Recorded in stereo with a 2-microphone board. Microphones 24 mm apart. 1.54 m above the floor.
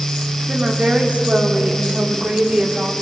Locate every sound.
0.5 s a woman speaking: 85° right, 3.5 m; by 2.9 s 40° right (ahead or behind), 4 m